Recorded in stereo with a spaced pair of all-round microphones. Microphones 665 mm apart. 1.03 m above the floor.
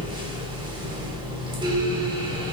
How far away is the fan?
About 0.8 m.